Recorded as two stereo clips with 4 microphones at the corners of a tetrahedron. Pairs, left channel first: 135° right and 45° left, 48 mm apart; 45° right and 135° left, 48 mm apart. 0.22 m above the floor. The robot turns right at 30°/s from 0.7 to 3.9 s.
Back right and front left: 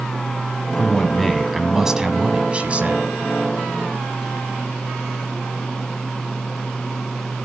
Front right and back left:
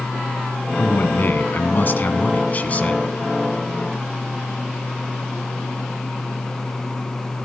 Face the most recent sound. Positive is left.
turn(degrees=30)